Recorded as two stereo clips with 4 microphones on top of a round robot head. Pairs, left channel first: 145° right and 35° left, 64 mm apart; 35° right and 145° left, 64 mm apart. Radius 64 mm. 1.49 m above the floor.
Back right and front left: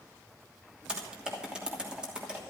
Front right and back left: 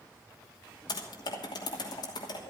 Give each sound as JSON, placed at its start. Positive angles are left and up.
{"t": 0.9, "sound": "typing on a keyboard", "azimuth_deg": -40, "distance_m": 2.5}